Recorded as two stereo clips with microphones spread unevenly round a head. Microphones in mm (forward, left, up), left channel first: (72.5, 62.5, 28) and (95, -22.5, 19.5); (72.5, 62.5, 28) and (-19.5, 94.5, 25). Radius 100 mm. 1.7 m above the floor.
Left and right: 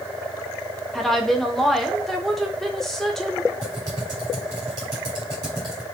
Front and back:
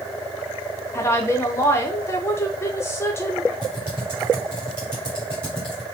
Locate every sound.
0.9 s a woman speaking: 30° left, 0.6 m
3.6 s typing on a keyboard: 130° right, 1.5 m